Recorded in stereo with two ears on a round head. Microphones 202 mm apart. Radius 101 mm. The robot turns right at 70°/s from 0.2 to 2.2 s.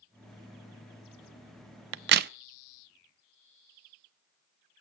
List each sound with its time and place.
1.9 s a crack: 60° right (ahead or behind), 0.5 m; by 2.3 s 45° right (ahead or behind), 0.5 m